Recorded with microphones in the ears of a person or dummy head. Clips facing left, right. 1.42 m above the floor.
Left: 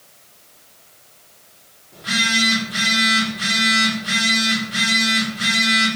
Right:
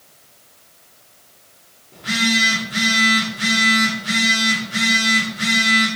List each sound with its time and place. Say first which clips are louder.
1.9 s a phone buzzing: right 4 dB; 20° right (ahead or behind), 0.8 m